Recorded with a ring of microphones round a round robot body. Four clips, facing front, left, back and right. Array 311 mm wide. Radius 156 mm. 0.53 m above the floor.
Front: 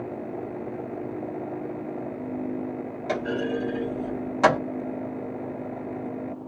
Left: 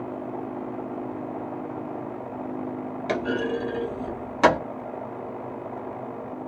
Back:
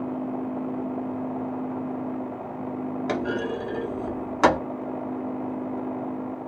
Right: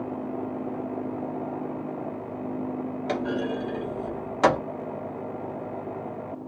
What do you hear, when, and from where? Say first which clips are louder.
3.1 s a clunk: left 3 dB, front 2 dB; 150° left, 1.4 m